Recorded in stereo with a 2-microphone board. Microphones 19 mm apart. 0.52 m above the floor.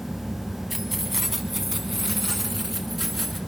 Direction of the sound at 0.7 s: 5° right (ahead or behind).